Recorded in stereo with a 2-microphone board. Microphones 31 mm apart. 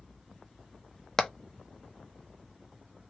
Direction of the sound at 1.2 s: 20° left (ahead or behind).